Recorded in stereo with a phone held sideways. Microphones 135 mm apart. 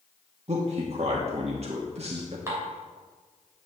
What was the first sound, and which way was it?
A man speaking, 50° right (ahead or behind).